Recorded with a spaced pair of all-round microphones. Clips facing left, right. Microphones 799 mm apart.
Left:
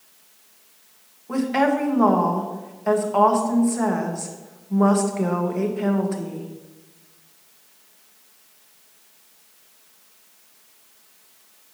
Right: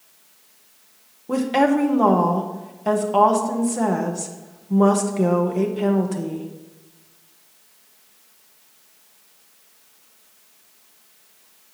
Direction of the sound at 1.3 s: 60° right (ahead or behind).